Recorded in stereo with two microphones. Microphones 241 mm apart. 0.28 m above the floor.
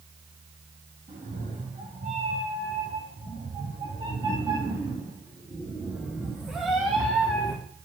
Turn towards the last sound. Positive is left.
turn(degrees=10)  # may be behind; listen again after turning